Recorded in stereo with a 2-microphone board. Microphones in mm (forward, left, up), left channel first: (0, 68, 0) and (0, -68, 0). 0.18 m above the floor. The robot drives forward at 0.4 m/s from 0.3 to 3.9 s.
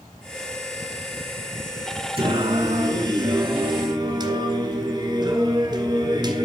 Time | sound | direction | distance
2.2 | singing | 45° right (ahead or behind) | 1.5 m